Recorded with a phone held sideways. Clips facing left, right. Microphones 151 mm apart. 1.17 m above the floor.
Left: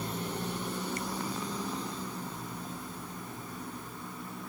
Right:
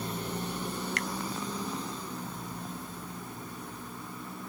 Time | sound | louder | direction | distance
1.0 | a finger snap | right 1 dB | 80° right | ?